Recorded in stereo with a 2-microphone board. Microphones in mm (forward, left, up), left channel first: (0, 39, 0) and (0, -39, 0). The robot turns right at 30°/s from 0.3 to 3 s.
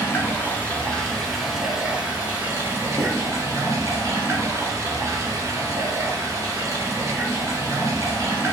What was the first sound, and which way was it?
Running water, 145° left.